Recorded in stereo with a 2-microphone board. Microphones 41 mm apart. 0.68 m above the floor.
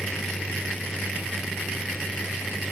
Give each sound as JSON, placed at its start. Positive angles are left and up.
{"t": 0.0, "sound": "a vehicle", "side_deg": 0}